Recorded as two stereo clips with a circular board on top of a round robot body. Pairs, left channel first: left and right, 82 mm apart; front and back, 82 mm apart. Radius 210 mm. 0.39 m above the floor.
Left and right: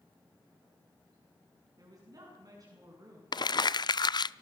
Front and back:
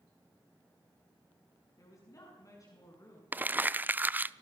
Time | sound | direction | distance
1.8 | a woman speaking | 45° right | 6.5 m
3.3 | crumpling | 115° left | 0.7 m